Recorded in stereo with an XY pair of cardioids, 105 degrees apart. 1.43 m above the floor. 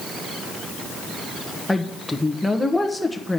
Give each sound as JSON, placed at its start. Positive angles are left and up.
{"t": 1.7, "sound": "a woman speaking", "azimuth_deg": 5, "distance_m": 1.1}